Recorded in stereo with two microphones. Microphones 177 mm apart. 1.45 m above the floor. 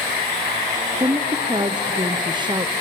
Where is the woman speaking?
25° right (ahead or behind), 0.6 m.